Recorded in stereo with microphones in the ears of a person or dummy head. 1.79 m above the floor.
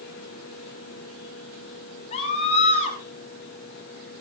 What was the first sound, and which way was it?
A scream, 35° left (ahead or behind).